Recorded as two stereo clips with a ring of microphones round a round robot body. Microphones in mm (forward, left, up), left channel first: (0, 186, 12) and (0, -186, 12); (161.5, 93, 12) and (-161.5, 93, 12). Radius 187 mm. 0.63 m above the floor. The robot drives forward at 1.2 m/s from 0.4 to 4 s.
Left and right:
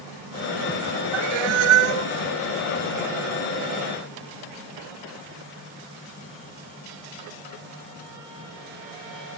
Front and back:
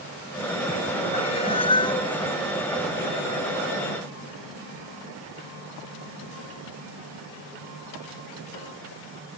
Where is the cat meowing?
75° right; by 2.1 s 80° right.